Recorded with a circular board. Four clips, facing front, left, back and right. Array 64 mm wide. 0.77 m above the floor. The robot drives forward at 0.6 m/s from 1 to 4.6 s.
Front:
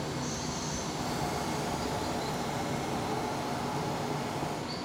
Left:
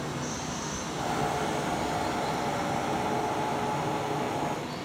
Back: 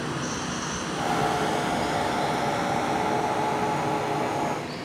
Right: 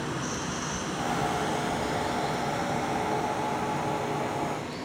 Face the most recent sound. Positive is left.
turn(degrees=-165)